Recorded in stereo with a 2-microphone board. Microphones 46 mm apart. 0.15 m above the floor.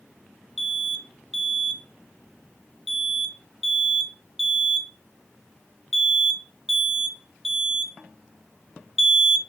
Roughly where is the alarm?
Centre.